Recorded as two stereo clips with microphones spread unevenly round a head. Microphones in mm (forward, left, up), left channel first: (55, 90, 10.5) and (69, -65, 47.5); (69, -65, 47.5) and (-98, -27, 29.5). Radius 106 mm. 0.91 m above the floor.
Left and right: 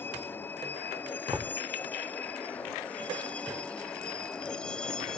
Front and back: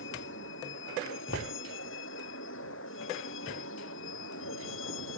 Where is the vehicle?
20° left; by 5.2 s 10° left.